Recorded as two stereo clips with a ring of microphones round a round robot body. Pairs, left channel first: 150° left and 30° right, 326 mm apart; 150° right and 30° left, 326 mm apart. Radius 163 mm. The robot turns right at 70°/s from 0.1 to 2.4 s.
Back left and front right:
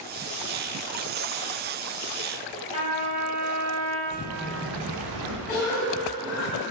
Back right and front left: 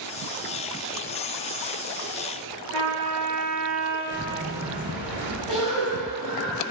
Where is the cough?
100° left, 1.9 m.